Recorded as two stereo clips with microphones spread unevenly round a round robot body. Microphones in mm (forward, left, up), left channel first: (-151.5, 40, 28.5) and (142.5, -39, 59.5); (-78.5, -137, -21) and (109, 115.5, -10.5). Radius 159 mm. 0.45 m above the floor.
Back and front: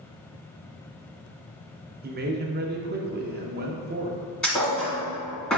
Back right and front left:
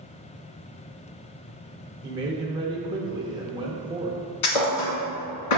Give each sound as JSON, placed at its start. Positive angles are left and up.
{"t": 2.0, "sound": "a man speaking", "azimuth_deg": -10, "distance_m": 0.7}
{"t": 4.4, "sound": "a thud", "azimuth_deg": -105, "distance_m": 1.8}